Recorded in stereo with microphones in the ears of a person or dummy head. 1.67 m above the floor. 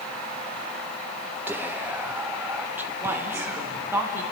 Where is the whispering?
5° right (ahead or behind), 0.9 m.